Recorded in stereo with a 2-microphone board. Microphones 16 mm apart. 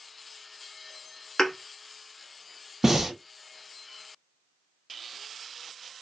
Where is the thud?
75° left (ahead or behind), 0.9 m.